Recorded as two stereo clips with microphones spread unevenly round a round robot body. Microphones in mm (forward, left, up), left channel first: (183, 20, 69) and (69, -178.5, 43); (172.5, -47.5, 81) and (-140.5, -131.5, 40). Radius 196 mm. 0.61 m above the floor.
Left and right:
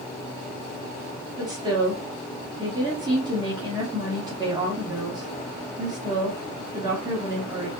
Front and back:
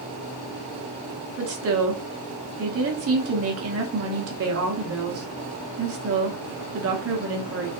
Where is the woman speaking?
175° left, 1.0 m.